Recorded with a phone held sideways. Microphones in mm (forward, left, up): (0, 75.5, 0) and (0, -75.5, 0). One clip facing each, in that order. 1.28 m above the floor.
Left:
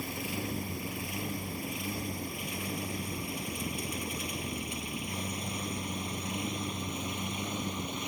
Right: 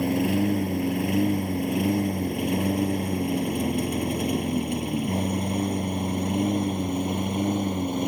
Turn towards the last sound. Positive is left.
turn(degrees=-60)  # may be behind; listen again after turning